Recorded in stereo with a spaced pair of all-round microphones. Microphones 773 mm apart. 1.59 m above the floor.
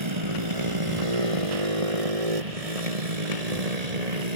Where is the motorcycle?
35° right (ahead or behind); by 4.4 s 55° right (ahead or behind).